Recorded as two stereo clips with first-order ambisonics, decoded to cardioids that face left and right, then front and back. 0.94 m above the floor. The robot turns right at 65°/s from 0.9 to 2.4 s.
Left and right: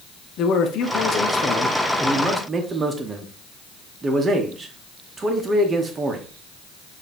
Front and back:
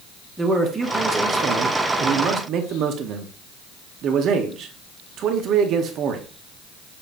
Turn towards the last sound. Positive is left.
turn(degrees=-155)